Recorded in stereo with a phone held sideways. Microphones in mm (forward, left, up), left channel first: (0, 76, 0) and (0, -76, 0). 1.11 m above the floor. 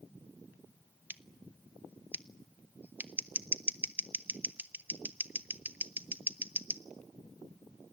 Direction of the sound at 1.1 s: 10° right (ahead or behind).